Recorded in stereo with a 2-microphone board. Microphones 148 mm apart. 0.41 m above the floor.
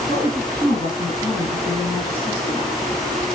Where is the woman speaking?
50° left (ahead or behind), 4.5 m.